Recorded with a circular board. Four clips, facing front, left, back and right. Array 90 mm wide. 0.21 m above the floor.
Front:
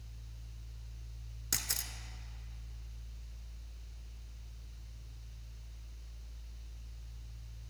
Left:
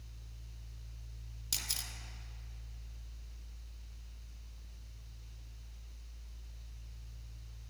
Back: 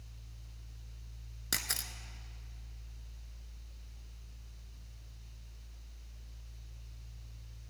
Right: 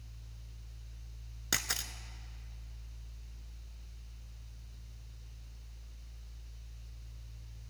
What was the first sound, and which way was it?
A camera shutter, 105° right.